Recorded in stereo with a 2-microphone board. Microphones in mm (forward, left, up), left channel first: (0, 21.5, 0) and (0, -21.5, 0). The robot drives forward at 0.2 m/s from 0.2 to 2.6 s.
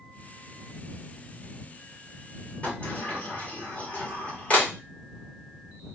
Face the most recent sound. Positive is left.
turn(degrees=30)  # may be behind; listen again after turning